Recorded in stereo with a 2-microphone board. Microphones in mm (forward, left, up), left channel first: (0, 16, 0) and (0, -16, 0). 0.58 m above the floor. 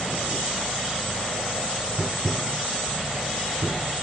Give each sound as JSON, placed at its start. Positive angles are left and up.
{"t": 2.0, "sound": "tapping", "side_deg": -80}